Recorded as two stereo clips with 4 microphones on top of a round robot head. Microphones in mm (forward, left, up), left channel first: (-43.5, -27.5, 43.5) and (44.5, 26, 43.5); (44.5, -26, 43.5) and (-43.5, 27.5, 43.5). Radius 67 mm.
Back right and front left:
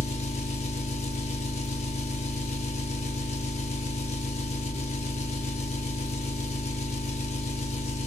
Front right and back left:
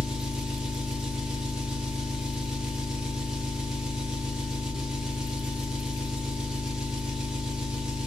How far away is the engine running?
About 0.8 m.